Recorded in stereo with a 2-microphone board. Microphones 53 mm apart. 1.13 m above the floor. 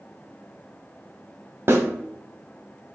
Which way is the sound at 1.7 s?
45° right (ahead or behind).